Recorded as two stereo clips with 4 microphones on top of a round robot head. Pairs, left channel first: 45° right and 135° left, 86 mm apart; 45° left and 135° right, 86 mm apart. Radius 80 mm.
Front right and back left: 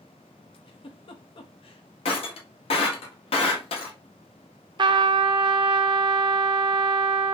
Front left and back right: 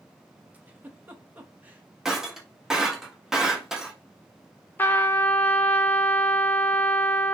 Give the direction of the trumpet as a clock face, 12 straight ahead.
8 o'clock.